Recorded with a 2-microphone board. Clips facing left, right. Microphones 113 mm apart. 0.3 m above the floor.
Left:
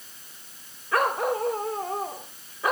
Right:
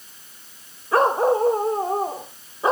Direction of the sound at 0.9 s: 30° right (ahead or behind).